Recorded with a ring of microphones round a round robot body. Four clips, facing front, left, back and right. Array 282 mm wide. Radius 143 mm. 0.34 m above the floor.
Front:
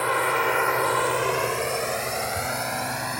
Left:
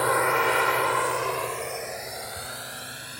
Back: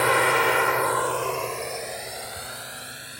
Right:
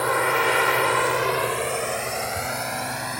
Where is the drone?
175° right; by 3.2 s 40° right.